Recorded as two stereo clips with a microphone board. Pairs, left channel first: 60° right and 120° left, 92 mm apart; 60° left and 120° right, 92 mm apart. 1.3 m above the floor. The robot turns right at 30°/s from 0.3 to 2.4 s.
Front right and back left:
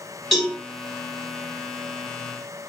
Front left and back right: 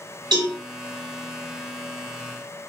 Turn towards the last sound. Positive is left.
turn(degrees=-85)